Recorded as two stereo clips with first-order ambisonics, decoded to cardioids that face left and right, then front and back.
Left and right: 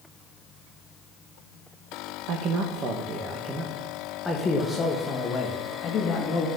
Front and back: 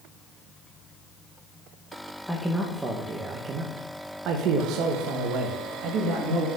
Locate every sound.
2.3 s a man speaking: 90° right, 0.9 m; by 6.5 s 145° left, 1.7 m